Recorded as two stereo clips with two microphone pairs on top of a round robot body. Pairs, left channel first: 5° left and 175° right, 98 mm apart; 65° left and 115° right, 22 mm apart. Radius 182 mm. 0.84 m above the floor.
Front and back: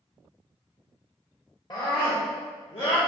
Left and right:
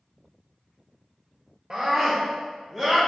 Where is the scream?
50° right, 1.1 m; by 3.0 s 5° right, 1.4 m.